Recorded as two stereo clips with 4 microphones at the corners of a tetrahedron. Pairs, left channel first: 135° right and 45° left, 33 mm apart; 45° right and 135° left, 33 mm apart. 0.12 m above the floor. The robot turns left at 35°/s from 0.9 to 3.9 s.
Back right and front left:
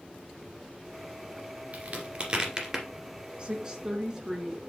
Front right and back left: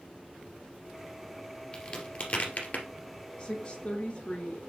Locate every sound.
1.7 s a crack: 10° left, 1.9 m; by 2.9 s 30° right, 1.9 m
3.4 s a woman speaking: 10° left, 1.6 m; by 4.6 s 10° right, 1.6 m